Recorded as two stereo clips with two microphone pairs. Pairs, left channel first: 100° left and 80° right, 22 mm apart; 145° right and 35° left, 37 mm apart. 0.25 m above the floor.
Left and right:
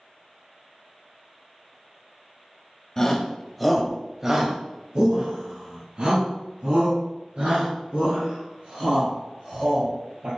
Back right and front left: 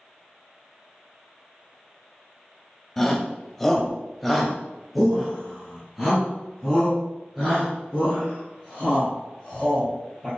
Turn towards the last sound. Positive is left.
turn(degrees=-45)